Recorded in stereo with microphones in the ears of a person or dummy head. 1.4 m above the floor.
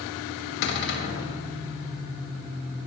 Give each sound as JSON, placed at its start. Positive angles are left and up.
{"t": 0.6, "sound": "a cupboard door", "side_deg": 60, "distance_m": 2.5}